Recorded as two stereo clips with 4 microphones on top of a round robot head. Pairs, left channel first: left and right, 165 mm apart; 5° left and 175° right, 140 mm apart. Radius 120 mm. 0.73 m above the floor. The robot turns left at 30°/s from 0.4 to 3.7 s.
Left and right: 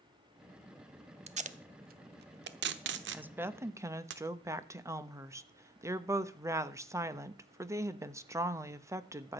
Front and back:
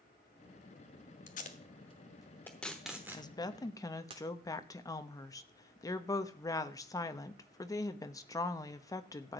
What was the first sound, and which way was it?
Tape being pulled, 40° right.